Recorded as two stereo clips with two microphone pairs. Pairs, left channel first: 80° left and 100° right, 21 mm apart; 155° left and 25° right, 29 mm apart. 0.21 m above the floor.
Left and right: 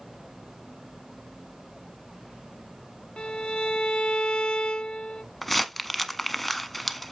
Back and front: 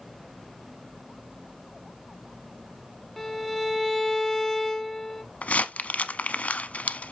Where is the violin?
80° left, 0.7 m.